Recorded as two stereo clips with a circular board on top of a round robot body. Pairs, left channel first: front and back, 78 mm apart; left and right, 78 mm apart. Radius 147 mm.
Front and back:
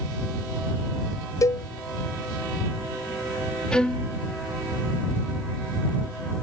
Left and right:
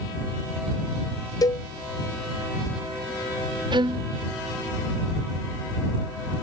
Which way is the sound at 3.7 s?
80° right.